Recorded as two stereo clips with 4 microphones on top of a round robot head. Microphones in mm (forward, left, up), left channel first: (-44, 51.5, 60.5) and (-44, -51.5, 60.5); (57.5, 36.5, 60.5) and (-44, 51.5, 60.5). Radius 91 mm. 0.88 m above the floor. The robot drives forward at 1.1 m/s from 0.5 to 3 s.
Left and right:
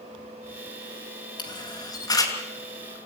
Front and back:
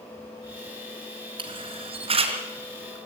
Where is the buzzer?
I don't hear a buzzer.